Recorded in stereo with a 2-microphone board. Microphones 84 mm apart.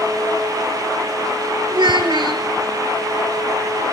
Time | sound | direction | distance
1.7 | a child speaking | 70° right (ahead or behind) | 2 m